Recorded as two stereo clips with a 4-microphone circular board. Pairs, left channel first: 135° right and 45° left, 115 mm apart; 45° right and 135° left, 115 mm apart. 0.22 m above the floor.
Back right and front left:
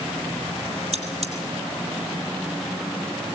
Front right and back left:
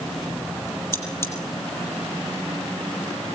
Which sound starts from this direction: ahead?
Cutlery clinking, at 0.9 s.